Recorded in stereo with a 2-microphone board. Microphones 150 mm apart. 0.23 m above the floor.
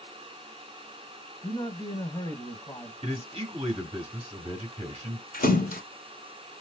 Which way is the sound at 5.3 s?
75° left (ahead or behind).